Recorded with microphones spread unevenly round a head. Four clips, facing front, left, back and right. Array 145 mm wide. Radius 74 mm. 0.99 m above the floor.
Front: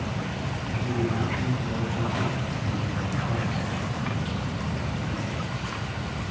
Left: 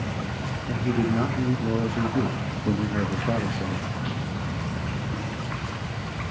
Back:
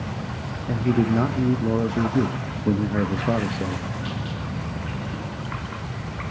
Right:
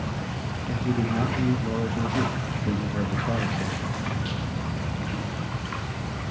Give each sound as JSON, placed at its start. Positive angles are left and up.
{"t": 0.7, "sound": "a man speaking", "azimuth_deg": 175, "distance_m": 1.1}